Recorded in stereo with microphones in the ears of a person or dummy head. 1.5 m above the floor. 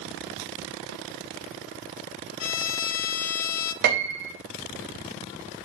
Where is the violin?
80° left, 0.5 m.